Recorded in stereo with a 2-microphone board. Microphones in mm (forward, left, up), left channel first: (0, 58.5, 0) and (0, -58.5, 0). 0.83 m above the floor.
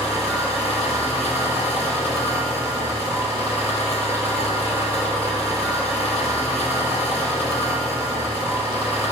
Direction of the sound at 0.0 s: 20° right (ahead or behind).